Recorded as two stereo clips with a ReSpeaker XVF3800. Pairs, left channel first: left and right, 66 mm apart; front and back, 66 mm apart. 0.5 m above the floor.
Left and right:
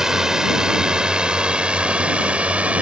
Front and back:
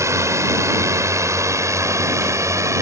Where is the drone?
170° right; by 2.8 s 155° right.